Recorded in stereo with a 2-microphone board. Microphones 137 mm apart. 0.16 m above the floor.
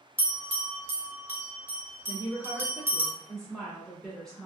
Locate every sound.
0.2 s a bell: 15° right (ahead or behind), 0.9 m
2.1 s a woman speaking: 5° left (ahead or behind), 1.2 m